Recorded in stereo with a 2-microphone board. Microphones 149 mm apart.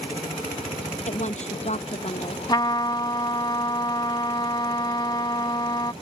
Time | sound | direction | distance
1.1 | a woman speaking | 55° left (ahead or behind) | ?
2.5 | a trumpet | 30° left (ahead or behind) | ?